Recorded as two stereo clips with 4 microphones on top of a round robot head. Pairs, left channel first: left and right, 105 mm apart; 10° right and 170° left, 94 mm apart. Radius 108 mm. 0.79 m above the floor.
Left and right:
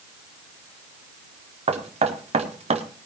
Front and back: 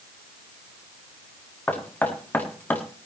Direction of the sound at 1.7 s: 85° right.